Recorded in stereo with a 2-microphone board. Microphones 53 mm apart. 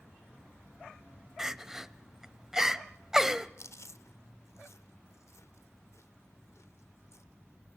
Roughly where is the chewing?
Left.